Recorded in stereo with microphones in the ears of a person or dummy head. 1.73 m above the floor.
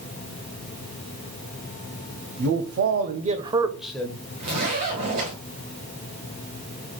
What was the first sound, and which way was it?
A man speaking, 65° right (ahead or behind).